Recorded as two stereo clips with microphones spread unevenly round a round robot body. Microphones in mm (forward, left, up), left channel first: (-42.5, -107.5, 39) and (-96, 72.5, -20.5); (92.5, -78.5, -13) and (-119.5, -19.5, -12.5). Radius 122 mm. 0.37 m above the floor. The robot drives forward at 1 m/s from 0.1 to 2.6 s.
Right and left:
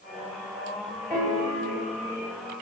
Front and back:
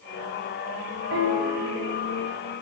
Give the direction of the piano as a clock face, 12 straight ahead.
6 o'clock.